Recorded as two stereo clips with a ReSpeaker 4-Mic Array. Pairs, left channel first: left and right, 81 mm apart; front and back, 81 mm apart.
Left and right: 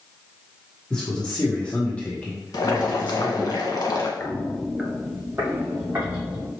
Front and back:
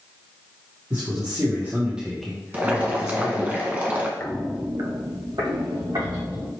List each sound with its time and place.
0.9 s a man speaking: 165° left, 1.4 m; by 3.5 s 25° left, 1.4 m
2.5 s boiling: 115° left, 0.8 m
4.2 s footsteps: 45° left, 0.7 m; by 6.5 s 155° right, 3 m